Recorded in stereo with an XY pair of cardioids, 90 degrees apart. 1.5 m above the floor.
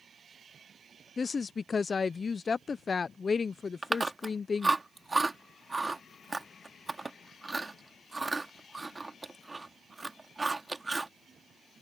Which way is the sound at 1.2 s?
40° left.